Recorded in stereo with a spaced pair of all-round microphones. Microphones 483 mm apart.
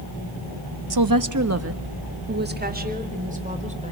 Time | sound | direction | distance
0.9 | a woman speaking | 55° right (ahead or behind) | 0.8 m